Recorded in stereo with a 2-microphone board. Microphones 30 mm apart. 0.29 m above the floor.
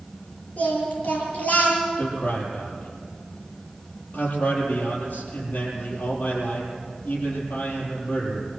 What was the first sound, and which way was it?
Singing, 60° left (ahead or behind).